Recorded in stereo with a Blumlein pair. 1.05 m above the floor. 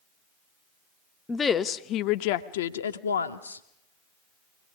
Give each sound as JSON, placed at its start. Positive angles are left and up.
{"t": 1.3, "sound": "a woman speaking", "azimuth_deg": 10, "distance_m": 0.9}